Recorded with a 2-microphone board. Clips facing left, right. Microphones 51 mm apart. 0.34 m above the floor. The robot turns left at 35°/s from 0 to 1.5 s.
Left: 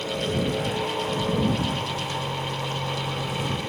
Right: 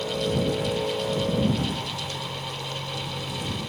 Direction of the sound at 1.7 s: 30° left (ahead or behind).